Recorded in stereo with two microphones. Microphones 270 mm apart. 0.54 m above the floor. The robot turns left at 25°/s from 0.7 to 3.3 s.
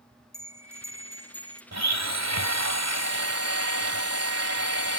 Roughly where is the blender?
Right.